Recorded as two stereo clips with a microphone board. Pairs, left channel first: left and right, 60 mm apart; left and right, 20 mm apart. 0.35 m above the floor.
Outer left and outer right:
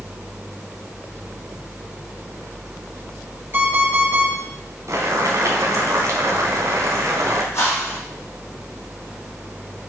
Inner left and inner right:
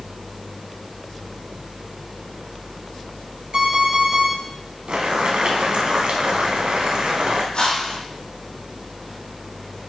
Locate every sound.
3.5 s an alarm clock: 40° right (ahead or behind), 4 m
4.9 s boiling: 65° right (ahead or behind), 1.9 m
7.5 s a whoosh: 50° left (ahead or behind), 3.5 m